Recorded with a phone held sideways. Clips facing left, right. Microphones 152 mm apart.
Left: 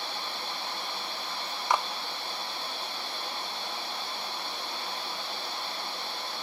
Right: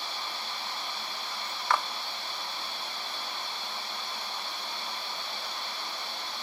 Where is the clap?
15° left (ahead or behind), 0.8 m.